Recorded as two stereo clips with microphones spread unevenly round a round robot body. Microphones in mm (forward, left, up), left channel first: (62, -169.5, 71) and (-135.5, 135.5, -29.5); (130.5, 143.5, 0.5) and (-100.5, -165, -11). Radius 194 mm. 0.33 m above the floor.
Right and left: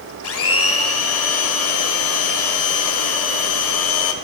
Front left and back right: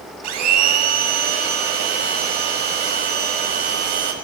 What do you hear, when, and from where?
0.2 s a blender: 115° right, 1.0 m